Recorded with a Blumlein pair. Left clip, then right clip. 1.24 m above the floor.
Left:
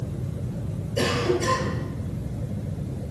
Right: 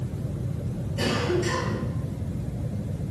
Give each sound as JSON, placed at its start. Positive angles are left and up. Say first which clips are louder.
{"t": 1.0, "sound": "a cough", "louder": "left 2 dB", "azimuth_deg": 45, "distance_m": 7.0}